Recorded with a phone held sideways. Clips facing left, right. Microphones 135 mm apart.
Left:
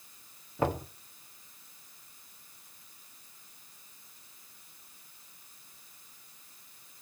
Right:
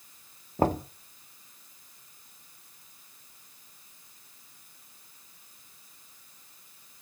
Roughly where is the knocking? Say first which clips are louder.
Right 5 dB; right.